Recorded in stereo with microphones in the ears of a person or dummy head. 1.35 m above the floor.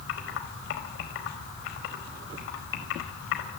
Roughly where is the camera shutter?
I don't hear a camera shutter.